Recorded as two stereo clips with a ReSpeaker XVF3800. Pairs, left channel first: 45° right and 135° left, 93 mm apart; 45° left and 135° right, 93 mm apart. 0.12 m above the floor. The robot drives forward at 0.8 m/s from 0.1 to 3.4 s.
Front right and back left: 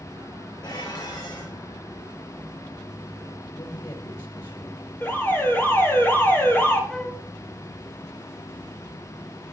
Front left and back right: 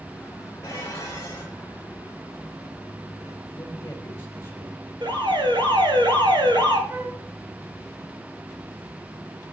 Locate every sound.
0.6 s dishes clattering: 10° right, 5.5 m
3.5 s a man speaking: 15° right, 4 m
5.0 s an alarm: 110° right, 2.0 m
6.9 s a flute: 115° right, 0.9 m